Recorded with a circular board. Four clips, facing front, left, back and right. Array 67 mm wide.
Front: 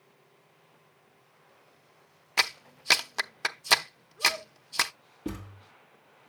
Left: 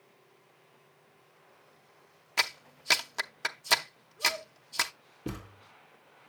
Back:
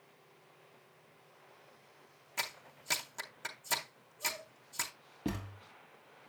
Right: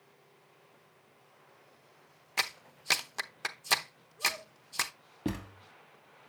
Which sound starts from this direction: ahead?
A clap, at 2.4 s.